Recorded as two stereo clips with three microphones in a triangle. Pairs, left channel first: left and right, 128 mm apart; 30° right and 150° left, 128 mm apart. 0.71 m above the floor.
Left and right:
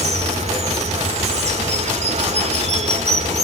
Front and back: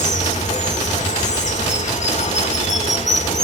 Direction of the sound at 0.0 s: 55° right.